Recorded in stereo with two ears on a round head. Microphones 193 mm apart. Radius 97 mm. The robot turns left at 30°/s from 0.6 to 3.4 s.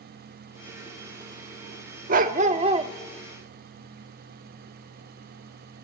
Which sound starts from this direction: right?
A dog barking, at 2.1 s.